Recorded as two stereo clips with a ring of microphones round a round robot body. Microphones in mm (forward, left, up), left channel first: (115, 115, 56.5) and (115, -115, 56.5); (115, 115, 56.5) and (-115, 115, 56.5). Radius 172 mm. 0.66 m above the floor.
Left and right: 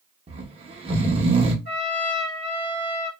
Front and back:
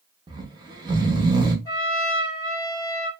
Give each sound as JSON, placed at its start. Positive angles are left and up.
{"t": 0.3, "sound": "snoring", "azimuth_deg": -125, "distance_m": 0.6}
{"t": 1.6, "sound": "a trumpet", "azimuth_deg": 75, "distance_m": 1.6}